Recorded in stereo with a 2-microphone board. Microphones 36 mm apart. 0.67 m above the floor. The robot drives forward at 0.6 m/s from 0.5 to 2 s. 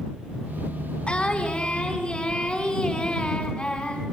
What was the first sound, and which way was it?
Singing, 30° left (ahead or behind).